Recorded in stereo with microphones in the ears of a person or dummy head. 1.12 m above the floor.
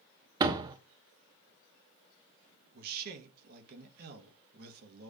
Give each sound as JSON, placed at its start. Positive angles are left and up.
{"t": 0.4, "sound": "a door slam", "side_deg": -20, "distance_m": 0.9}
{"t": 2.7, "sound": "a man speaking", "side_deg": -55, "distance_m": 1.5}